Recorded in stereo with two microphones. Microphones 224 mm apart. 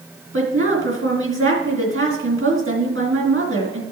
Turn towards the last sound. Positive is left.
turn(degrees=-70)  # may be behind; listen again after turning